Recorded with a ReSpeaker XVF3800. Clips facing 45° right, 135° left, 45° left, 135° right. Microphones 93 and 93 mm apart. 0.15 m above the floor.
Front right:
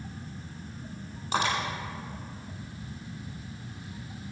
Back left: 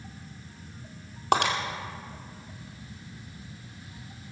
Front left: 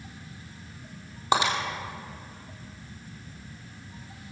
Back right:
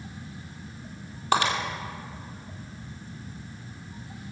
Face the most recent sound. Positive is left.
turn(degrees=120)